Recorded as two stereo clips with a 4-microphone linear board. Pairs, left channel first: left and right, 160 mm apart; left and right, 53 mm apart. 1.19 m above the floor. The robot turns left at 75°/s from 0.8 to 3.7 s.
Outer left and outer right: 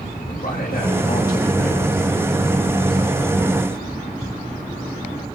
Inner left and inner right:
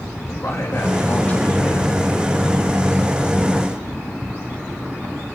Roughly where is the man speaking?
Ahead left.